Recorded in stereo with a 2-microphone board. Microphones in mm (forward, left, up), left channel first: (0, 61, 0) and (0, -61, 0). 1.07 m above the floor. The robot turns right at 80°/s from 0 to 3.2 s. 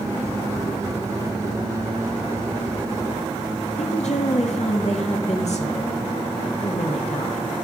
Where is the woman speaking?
65° left (ahead or behind), 1.9 m.